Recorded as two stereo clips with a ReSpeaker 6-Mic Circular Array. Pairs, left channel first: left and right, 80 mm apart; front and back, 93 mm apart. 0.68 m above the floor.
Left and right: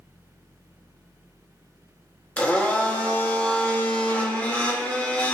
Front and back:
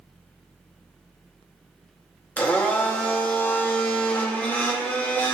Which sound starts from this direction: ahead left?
A blender, at 2.4 s.